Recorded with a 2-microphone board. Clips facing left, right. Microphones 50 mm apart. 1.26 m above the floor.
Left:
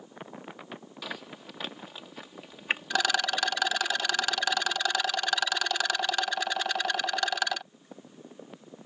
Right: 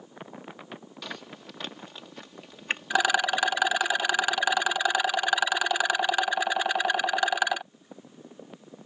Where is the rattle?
15° right (ahead or behind).